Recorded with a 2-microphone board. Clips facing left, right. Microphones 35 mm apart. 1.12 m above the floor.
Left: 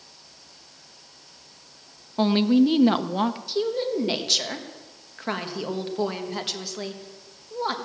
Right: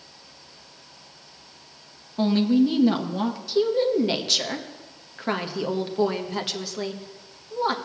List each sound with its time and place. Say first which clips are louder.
2.2 s a woman speaking: left 1 dB; 30° left (ahead or behind), 0.8 m
3.5 s a woman speaking: right 4 dB; 5° right (ahead or behind), 1.3 m